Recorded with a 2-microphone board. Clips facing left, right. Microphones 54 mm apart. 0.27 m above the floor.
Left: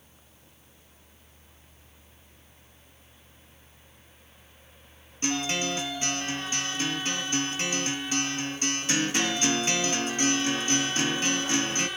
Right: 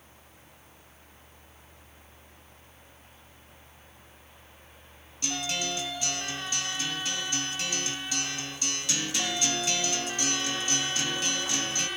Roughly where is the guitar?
Left.